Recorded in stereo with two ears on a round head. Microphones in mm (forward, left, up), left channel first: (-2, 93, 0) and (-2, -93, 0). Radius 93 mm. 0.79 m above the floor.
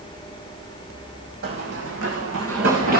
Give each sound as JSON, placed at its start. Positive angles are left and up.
{"t": 1.4, "sound": "running footsteps", "side_deg": -50, "distance_m": 2.0}